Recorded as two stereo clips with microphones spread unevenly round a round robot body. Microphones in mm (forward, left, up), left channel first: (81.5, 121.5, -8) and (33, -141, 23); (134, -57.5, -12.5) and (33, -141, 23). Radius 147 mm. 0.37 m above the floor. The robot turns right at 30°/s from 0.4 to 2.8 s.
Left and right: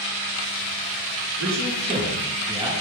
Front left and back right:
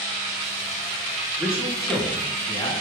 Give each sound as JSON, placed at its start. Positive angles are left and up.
{"t": 1.4, "sound": "a man speaking", "azimuth_deg": -60, "distance_m": 3.5}